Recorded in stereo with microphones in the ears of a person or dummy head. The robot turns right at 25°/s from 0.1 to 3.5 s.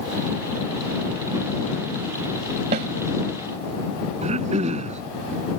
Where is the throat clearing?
35° right (ahead or behind).